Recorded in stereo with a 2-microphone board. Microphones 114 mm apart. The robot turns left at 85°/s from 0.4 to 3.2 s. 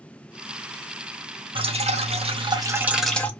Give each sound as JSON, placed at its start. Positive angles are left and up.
{"t": 1.6, "sound": "dripping", "azimuth_deg": -50, "distance_m": 0.8}